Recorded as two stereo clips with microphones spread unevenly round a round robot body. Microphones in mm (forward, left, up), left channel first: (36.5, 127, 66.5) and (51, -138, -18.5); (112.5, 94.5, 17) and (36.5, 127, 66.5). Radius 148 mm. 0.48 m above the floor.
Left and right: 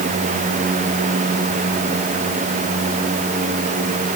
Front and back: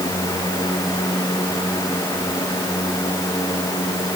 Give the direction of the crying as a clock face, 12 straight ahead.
No crying in this recording.